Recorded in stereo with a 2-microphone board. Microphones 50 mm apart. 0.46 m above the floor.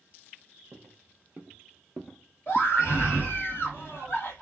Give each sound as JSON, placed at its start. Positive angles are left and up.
{"t": 0.7, "sound": "footsteps", "side_deg": -55, "distance_m": 0.9}
{"t": 2.5, "sound": "a scream", "side_deg": 50, "distance_m": 1.5}